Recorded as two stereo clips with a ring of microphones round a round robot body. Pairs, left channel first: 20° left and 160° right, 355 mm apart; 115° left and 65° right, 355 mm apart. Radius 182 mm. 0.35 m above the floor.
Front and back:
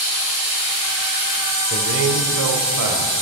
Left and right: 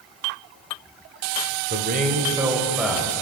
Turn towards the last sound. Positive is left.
turn(degrees=-165)